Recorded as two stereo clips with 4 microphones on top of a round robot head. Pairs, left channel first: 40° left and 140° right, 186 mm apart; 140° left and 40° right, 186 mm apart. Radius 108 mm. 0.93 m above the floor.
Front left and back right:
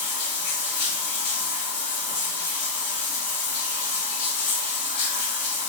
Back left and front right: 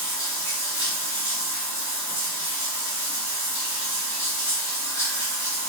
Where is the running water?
70° left, 1.2 m.